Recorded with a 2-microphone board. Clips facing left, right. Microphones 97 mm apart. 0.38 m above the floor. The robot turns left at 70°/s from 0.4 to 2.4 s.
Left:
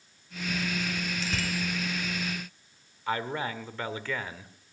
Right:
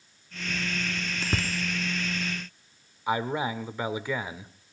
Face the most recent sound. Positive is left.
turn(degrees=-15)  # may be behind; listen again after turning